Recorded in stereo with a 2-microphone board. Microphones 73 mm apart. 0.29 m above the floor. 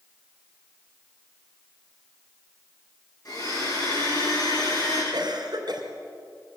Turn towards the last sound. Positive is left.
turn(degrees=-65)  # may be behind; listen again after turning